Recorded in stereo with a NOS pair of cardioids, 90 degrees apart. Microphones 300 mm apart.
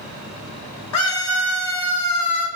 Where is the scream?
70° left, 0.7 m.